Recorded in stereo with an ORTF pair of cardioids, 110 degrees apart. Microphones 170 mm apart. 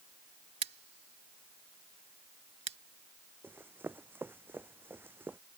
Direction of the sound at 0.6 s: 35° right.